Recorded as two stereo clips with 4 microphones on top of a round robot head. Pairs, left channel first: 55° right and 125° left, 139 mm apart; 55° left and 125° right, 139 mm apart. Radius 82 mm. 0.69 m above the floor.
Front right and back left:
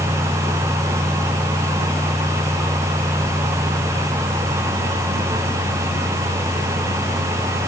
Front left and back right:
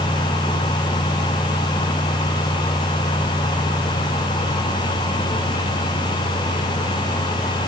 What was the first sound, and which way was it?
Only background noise.